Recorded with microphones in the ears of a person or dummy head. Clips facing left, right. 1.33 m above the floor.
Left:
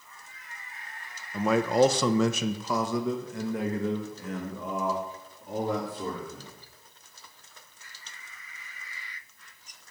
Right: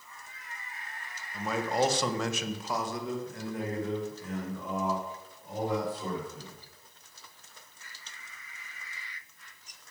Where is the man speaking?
50° left (ahead or behind), 0.9 m; by 6.6 s 40° left (ahead or behind), 3.5 m.